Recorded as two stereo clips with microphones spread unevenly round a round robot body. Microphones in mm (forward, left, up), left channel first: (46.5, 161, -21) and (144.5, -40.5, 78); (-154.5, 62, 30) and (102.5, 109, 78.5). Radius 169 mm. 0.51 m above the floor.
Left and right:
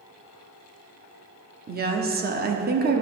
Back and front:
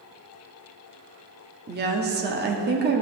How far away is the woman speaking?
About 1.0 m.